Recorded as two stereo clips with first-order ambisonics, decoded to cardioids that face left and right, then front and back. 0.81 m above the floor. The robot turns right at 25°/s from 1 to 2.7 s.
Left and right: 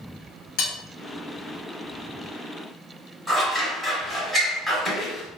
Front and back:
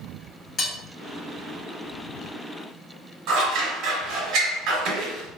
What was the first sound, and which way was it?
Cutlery clinking, 70° left.